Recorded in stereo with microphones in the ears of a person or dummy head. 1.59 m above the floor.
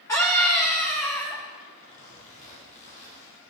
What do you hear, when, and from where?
0.1 s a scream: 15° left (ahead or behind), 1.7 m
1.8 s a zipper: 45° left (ahead or behind), 6 m